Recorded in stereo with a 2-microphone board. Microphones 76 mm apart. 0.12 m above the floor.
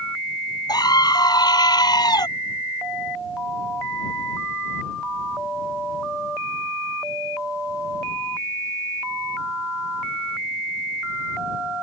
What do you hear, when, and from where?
0.7 s a scream: 65° left (ahead or behind)